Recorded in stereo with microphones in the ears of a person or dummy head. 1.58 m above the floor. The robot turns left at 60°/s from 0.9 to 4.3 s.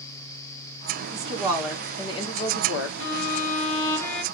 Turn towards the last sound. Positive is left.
turn(degrees=0)